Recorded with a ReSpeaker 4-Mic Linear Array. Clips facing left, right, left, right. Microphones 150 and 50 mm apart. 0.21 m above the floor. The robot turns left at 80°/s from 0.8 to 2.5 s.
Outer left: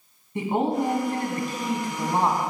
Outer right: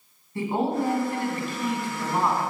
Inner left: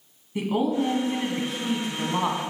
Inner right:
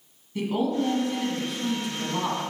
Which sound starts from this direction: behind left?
A woman speaking, at 0.3 s.